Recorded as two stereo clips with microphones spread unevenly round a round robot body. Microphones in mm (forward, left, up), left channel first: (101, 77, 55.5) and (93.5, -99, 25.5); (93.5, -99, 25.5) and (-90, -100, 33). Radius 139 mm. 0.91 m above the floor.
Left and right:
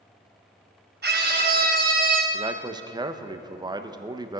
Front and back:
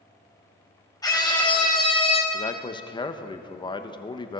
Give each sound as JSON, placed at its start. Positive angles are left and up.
{"t": 1.0, "sound": "a scream", "azimuth_deg": -70, "distance_m": 4.5}
{"t": 2.3, "sound": "a man speaking", "azimuth_deg": -50, "distance_m": 1.0}